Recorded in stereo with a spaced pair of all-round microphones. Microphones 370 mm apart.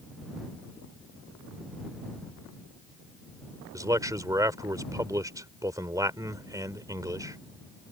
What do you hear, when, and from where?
3.7 s a man speaking: 10° right (ahead or behind)